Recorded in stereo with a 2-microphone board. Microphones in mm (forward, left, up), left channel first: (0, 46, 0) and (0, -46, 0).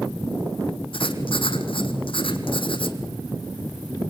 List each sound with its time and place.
0.9 s writing: 75° left (ahead or behind), 1.9 m